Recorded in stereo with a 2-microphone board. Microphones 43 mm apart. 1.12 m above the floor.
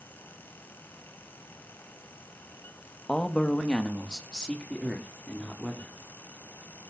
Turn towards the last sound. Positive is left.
turn(degrees=15)  # may be behind; listen again after turning